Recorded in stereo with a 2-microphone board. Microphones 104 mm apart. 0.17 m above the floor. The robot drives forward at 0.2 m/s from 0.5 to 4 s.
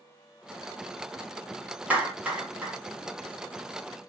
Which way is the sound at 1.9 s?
15° right (ahead or behind).